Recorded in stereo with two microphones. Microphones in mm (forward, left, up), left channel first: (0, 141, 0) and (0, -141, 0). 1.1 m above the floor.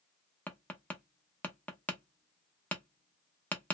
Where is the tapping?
5° left (ahead or behind), 0.6 m.